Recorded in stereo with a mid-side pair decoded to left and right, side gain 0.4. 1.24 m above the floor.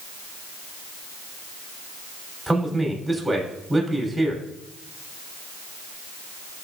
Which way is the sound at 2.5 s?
15° right.